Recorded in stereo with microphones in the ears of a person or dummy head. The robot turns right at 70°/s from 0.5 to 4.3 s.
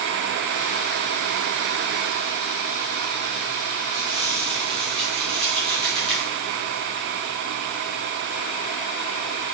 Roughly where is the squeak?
Centre.